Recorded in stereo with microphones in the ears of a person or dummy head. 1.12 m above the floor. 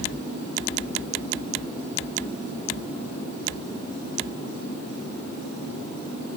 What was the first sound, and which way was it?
Only background noise.